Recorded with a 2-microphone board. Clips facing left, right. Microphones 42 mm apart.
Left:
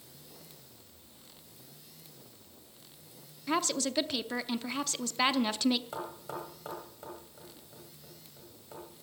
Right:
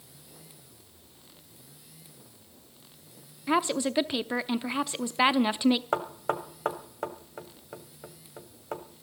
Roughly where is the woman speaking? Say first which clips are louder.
Right 5 dB; centre.